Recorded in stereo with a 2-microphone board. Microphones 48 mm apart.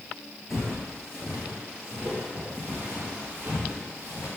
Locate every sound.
0.5 s footsteps: centre (ahead or behind), 1.2 m; by 4.3 s 30° right (ahead or behind), 2 m